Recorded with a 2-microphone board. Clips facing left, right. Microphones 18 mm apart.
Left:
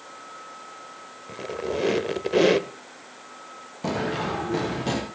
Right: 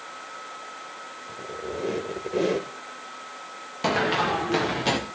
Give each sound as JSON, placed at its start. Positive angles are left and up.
{"t": 1.3, "sound": "a squeak", "side_deg": 50, "distance_m": 1.0}
{"t": 3.8, "sound": "running footsteps", "side_deg": -55, "distance_m": 4.0}